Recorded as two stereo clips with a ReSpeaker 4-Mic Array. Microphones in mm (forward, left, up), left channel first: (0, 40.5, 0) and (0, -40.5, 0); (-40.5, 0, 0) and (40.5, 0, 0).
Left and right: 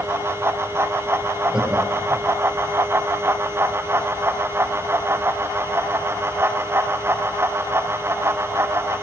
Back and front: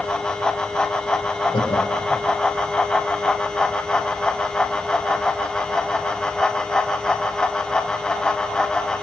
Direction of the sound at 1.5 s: 170° right.